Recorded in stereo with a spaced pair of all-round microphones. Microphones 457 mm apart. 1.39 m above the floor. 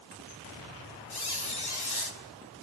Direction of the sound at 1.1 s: 55° left (ahead or behind).